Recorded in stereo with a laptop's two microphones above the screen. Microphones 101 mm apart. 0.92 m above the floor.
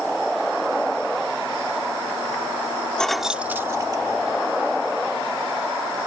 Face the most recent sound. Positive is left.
turn(degrees=-55)  # may be behind; listen again after turning